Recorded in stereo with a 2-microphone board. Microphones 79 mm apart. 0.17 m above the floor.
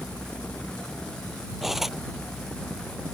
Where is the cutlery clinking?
5° right (ahead or behind).